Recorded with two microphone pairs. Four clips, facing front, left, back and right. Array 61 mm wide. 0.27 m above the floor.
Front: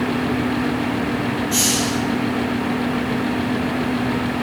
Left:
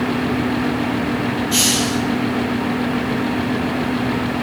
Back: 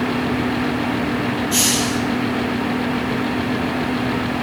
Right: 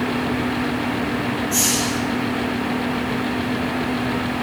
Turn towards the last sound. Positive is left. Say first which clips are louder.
# left 3 dB, back 1 dB
turn(degrees=115)